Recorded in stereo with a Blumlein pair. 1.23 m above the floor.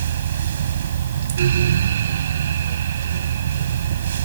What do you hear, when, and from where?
0.0 s a fan: 65° right